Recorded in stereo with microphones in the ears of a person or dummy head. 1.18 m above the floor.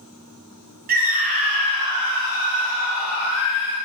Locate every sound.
0.9 s a scream: 50° right (ahead or behind), 1.1 m; by 3.8 s 10° right (ahead or behind), 2.0 m